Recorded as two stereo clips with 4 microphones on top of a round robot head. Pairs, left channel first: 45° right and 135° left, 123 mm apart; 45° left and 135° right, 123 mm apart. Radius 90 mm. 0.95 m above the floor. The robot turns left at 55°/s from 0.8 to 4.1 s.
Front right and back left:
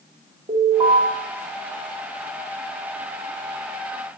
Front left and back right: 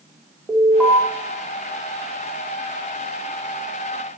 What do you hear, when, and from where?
0.5 s an alarm: 135° left, 1.9 m; by 1.0 s 125° left, 1.9 m